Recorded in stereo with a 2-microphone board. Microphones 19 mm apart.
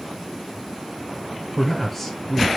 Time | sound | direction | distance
1.6 | a man speaking | 15° left (ahead or behind) | 0.6 m